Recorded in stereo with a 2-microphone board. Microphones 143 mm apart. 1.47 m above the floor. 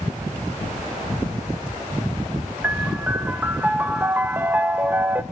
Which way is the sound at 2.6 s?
15° right (ahead or behind).